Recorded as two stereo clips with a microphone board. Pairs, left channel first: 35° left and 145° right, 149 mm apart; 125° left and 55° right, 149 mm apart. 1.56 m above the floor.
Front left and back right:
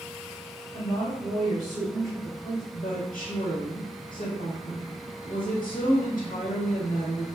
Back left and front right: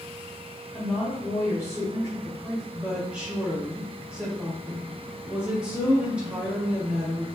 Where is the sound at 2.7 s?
25° left, 1.1 m.